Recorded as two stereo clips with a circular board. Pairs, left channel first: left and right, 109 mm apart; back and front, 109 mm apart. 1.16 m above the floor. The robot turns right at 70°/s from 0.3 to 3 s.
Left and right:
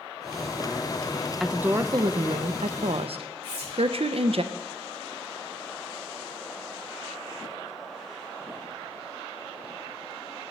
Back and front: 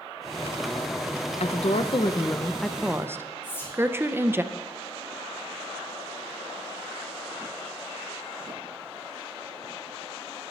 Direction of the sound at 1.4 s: Straight behind.